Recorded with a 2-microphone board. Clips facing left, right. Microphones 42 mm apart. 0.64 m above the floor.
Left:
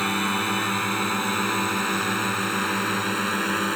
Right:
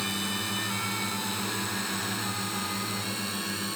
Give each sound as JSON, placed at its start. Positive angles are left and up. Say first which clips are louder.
{"t": 0.0, "sound": "a drone", "louder": "left 8 dB", "side_deg": 40}